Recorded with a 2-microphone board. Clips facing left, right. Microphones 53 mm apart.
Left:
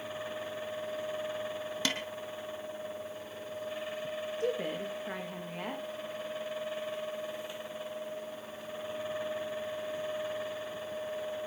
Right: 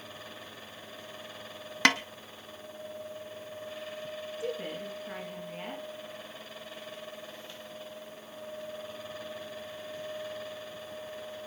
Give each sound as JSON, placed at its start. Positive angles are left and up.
{"t": 1.9, "sound": "a snare drum", "side_deg": -65, "distance_m": 0.7}
{"t": 4.4, "sound": "a woman speaking", "side_deg": 55, "distance_m": 7.5}